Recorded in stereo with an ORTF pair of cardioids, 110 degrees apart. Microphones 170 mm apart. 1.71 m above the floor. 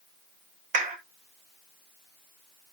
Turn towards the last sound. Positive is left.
turn(degrees=-50)